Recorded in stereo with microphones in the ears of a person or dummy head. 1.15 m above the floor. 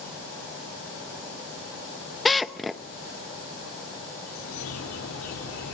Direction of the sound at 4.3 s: 80° left.